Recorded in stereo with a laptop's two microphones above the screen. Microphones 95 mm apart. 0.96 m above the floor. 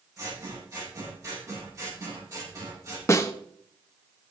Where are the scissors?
35° right (ahead or behind), 6.5 m.